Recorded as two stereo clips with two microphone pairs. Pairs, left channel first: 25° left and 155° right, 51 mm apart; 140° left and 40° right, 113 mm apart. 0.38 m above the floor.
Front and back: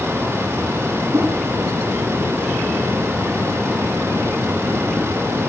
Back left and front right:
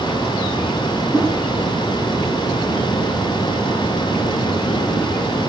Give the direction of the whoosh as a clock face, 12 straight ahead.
4 o'clock.